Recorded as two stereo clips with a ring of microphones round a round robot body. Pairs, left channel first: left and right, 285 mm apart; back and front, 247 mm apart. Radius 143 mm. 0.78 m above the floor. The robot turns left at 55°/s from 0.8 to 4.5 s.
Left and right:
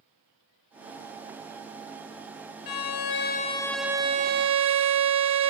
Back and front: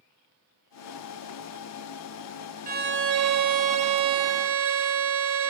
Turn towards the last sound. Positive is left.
turn(degrees=-40)